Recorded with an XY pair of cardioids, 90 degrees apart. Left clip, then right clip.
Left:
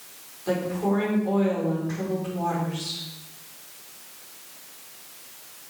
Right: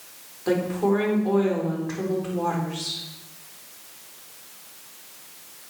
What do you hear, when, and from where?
0.5 s a woman speaking: 50° right, 4.5 m